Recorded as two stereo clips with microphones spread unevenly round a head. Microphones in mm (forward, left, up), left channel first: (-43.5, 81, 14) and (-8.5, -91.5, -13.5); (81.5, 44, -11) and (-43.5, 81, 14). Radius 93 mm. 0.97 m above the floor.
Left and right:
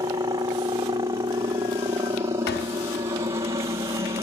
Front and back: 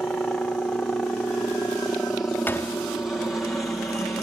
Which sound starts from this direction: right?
A helicopter, at 0.0 s.